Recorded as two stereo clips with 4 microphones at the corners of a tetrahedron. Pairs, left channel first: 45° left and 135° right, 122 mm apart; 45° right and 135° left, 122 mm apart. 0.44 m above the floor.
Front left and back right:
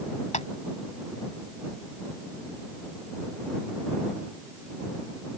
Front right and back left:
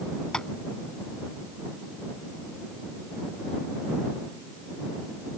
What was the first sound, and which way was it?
Tapping, 40° left.